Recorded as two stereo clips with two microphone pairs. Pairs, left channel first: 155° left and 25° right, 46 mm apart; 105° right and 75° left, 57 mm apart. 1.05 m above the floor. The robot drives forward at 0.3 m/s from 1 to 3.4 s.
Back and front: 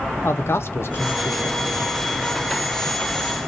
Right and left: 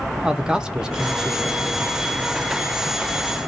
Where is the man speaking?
150° left, 0.6 m; by 1.8 s 160° left, 0.8 m.